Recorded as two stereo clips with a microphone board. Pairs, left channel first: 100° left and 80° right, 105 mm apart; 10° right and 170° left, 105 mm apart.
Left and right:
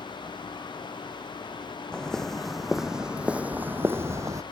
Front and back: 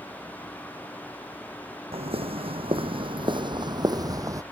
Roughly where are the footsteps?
Behind.